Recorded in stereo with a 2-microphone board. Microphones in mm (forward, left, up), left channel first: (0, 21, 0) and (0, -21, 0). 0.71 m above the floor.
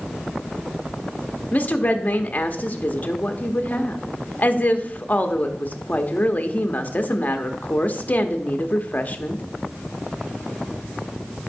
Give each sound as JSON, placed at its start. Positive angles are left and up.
{"t": 1.5, "sound": "a woman speaking", "side_deg": 35, "distance_m": 0.9}